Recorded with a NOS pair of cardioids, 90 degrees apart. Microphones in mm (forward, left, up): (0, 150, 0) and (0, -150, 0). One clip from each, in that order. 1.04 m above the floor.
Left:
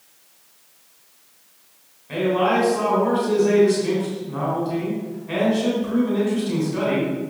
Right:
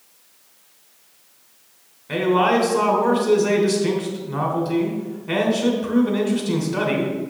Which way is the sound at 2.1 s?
45° right.